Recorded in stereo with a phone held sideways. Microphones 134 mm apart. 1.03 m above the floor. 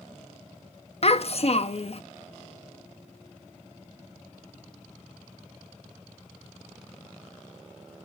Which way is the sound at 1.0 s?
50° left (ahead or behind).